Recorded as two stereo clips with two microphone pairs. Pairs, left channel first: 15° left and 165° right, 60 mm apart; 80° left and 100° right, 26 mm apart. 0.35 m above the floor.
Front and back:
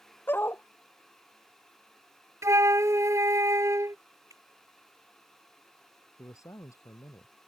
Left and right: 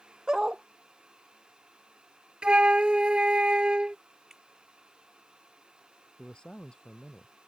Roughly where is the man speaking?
Ahead left.